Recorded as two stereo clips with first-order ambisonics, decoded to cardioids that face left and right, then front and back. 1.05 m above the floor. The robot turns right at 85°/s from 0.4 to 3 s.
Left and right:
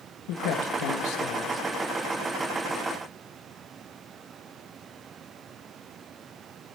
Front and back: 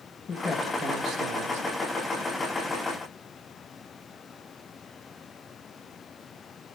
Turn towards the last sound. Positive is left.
turn(degrees=-70)